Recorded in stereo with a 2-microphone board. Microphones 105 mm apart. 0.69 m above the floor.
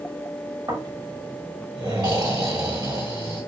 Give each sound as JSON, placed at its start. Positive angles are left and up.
{"t": 0.7, "sound": "snoring", "side_deg": -45, "distance_m": 1.6}